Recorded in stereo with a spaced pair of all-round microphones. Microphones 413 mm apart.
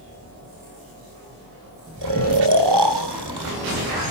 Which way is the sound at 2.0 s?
70° right (ahead or behind).